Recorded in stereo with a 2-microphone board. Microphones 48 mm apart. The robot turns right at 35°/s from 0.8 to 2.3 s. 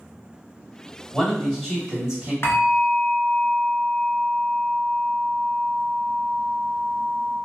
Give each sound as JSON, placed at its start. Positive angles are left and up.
{"t": 1.1, "sound": "a man speaking", "azimuth_deg": 160, "distance_m": 1.4}
{"t": 2.4, "sound": "a bell", "side_deg": 65, "distance_m": 0.9}